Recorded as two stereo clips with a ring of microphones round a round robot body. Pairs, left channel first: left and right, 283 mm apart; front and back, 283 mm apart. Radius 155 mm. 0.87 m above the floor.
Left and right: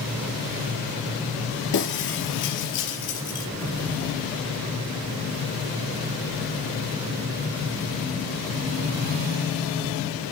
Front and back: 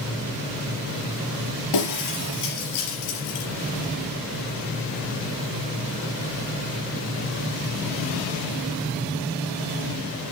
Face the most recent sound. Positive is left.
turn(degrees=35)